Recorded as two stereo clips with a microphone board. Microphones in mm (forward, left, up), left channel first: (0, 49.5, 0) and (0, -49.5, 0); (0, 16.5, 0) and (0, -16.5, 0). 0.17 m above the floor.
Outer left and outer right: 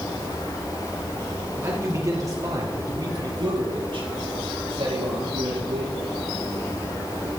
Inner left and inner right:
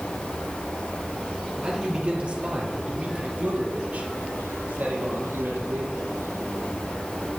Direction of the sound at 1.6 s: 25° right (ahead or behind).